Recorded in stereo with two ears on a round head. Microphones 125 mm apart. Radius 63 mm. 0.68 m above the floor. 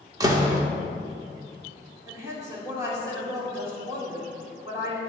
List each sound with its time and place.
0.2 s a door slam: 25° right (ahead or behind), 0.9 m
2.1 s a woman speaking: 20° right (ahead or behind), 2 m